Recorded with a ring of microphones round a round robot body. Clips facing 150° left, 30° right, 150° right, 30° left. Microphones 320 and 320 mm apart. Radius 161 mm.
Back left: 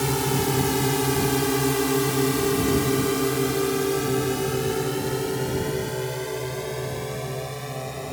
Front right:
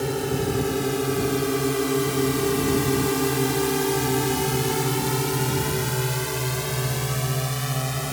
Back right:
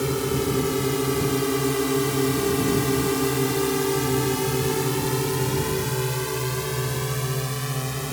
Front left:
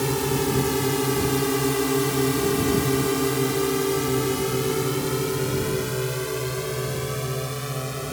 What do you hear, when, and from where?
0.0 s a drone: 105° left; by 8.1 s 75° right